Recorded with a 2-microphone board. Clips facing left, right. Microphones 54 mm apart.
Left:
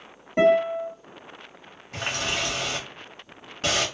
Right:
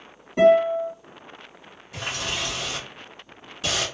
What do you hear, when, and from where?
0.4 s a guitar: 45° left (ahead or behind), 1.8 m
1.9 s a running tap: 45° left (ahead or behind), 1.0 m